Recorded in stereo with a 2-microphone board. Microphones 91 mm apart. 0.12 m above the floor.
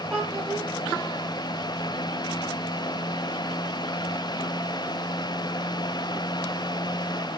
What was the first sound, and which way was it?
A child speaking, centre (ahead or behind).